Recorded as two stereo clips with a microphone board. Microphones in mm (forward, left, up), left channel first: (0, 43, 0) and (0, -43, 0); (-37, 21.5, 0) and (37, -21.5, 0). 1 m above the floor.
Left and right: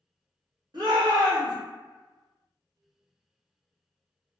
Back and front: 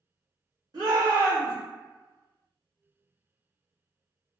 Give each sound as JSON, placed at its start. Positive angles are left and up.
{"t": 0.7, "sound": "a shout", "azimuth_deg": -65, "distance_m": 1.7}